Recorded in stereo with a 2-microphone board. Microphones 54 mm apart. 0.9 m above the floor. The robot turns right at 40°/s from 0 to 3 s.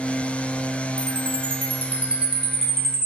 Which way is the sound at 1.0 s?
65° right.